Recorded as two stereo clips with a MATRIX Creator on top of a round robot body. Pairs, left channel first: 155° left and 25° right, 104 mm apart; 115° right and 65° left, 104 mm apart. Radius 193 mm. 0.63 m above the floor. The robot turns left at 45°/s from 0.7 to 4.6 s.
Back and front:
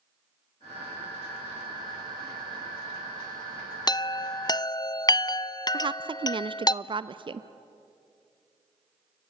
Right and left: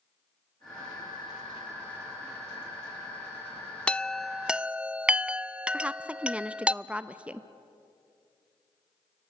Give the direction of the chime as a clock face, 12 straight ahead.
6 o'clock.